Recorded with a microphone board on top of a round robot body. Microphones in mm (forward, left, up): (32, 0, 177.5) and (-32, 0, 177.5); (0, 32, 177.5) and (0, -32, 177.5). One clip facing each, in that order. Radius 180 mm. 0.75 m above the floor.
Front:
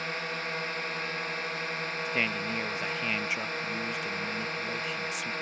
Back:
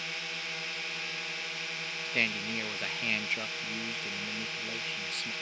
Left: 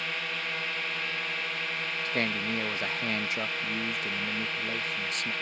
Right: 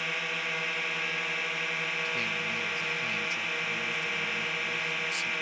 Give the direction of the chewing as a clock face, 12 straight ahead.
I don't hear chewing.